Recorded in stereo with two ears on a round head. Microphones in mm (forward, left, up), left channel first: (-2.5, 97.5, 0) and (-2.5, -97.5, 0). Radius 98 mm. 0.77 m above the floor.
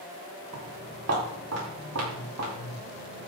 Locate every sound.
0.5 s footsteps: 75° right (ahead or behind), 8 m; by 3.3 s 85° right, 7 m